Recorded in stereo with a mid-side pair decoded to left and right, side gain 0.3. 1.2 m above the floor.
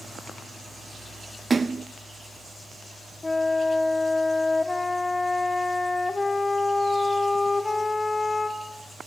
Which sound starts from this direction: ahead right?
A splash, at 1.5 s.